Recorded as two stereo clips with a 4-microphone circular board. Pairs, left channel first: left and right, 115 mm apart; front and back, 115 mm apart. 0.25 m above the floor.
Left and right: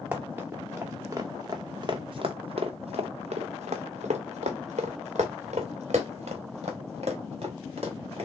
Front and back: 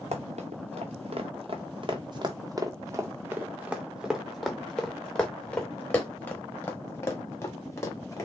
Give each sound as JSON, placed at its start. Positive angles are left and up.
{"t": 0.1, "sound": "running footsteps", "azimuth_deg": -165, "distance_m": 1.8}